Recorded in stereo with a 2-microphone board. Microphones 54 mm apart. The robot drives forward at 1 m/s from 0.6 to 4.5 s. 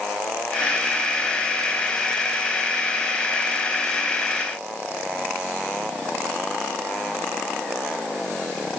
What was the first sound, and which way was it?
Only background noise.